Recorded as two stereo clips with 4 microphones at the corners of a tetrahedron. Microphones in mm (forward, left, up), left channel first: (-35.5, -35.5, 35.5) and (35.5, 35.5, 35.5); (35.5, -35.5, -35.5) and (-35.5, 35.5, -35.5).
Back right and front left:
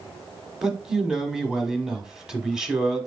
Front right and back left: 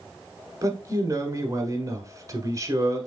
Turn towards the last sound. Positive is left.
turn(degrees=125)